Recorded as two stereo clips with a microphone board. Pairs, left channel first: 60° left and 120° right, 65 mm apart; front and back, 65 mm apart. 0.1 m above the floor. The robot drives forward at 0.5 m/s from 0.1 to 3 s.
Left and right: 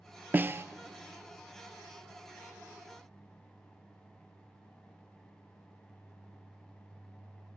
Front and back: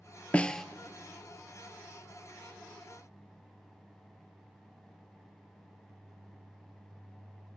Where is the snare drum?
65° right, 0.6 m; by 0.7 s 85° right, 0.6 m.